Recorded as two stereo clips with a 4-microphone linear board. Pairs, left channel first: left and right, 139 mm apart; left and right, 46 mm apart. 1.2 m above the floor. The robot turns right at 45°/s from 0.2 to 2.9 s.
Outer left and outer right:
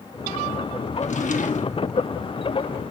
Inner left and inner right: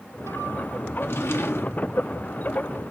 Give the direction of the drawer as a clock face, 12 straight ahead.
10 o'clock.